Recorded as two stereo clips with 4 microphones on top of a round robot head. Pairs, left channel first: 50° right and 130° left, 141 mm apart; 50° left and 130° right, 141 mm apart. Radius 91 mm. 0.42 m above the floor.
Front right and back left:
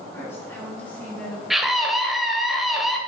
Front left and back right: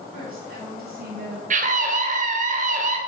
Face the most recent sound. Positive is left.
turn(degrees=-140)